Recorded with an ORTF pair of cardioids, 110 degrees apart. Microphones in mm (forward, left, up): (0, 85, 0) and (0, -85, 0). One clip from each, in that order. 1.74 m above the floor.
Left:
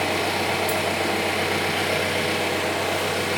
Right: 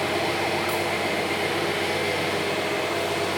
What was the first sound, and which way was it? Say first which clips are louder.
An engine running: left 1 dB; 65° left.